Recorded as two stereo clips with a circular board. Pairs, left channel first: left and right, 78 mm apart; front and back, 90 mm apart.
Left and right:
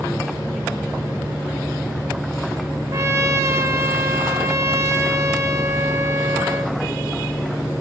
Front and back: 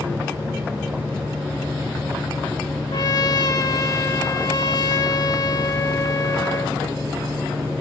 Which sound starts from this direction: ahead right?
A trumpet, at 2.9 s.